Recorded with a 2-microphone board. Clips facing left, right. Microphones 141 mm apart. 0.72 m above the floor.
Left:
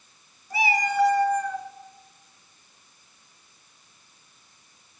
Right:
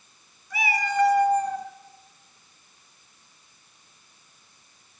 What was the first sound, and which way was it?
A cat meowing, 35° left (ahead or behind).